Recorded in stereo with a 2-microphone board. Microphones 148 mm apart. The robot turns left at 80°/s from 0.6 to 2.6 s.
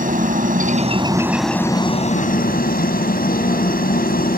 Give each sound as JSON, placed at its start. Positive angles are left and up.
{"t": 0.0, "sound": "a helicopter", "azimuth_deg": -115}